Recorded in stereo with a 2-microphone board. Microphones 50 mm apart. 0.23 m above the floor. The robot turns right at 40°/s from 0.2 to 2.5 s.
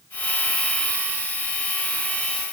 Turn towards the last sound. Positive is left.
No sound to turn to.